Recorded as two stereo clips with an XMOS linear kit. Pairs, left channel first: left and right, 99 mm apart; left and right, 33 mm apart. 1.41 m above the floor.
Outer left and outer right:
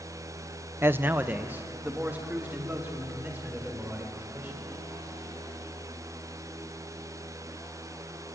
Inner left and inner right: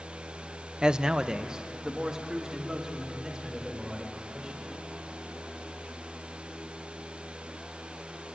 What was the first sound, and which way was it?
A man speaking, 25° right (ahead or behind).